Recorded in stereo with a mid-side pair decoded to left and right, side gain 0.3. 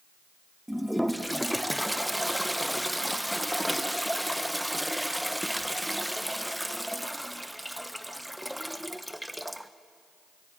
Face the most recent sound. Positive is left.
turn(degrees=-5)